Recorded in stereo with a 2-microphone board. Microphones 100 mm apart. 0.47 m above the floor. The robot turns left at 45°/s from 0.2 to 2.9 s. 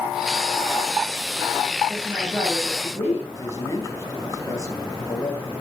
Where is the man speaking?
35° left (ahead or behind), 4 m.